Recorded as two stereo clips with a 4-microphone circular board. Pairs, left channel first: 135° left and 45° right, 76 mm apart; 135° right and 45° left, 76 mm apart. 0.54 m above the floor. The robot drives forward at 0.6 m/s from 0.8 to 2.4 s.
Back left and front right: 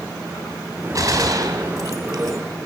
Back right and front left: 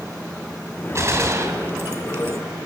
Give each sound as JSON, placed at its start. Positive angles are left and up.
{"t": 0.9, "sound": "a gunshot", "azimuth_deg": -5, "distance_m": 2.5}